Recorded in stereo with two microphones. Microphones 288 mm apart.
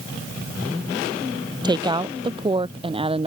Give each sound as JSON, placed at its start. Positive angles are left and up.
{"t": 1.6, "sound": "a woman speaking", "side_deg": -15}